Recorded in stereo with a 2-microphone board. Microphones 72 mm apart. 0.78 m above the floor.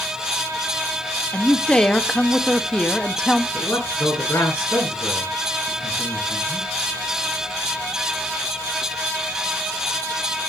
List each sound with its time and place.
1.3 s a man speaking: 10° left (ahead or behind), 1.3 m
3.5 s a man speaking: 35° left (ahead or behind), 8.5 m